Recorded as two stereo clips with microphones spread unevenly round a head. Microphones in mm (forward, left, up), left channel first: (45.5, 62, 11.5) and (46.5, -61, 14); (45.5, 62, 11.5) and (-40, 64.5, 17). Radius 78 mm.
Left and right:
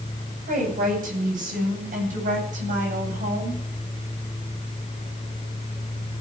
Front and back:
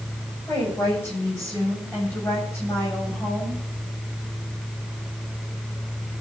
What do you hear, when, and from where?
0.5 s a woman speaking: 80° right, 7.5 m; by 3.6 s 75° right, 9 m